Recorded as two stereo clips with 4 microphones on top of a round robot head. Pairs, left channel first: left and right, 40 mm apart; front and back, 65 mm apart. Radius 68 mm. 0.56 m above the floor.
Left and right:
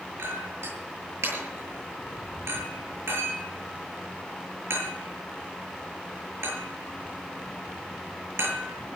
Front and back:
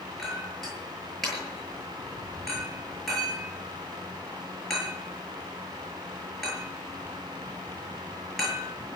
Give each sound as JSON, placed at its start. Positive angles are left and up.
{"t": 0.2, "sound": "a clink", "azimuth_deg": -85, "distance_m": 8.5}